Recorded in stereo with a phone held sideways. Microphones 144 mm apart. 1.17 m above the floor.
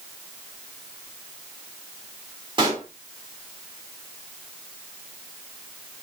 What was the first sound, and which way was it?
A pop, 35° right (ahead or behind).